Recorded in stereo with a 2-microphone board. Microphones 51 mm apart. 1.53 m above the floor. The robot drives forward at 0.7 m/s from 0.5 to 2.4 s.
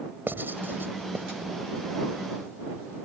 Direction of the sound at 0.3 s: 40° right (ahead or behind).